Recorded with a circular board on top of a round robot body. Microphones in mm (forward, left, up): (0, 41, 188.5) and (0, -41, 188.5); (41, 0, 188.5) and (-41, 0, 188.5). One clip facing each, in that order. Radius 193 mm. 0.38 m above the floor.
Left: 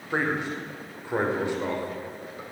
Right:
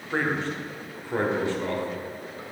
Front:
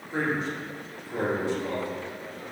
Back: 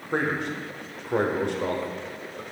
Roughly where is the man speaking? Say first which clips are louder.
Even, back 2 dB; behind.